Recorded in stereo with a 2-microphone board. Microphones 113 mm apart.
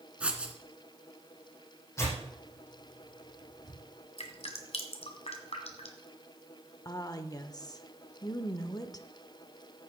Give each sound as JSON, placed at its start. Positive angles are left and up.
{"t": 0.2, "sound": "writing", "side_deg": -10, "distance_m": 1.5}
{"t": 2.0, "sound": "tearing paper", "side_deg": 25, "distance_m": 6.5}
{"t": 4.2, "sound": "dripping", "side_deg": 65, "distance_m": 1.8}
{"t": 6.8, "sound": "a woman speaking", "side_deg": 35, "distance_m": 0.9}